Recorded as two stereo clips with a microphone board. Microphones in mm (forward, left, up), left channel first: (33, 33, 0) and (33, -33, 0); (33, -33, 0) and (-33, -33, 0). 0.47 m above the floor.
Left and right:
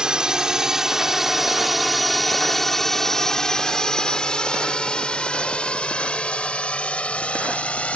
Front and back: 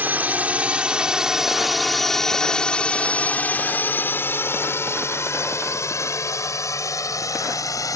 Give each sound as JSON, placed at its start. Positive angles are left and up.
{"t": 0.0, "sound": "a drone", "azimuth_deg": -155}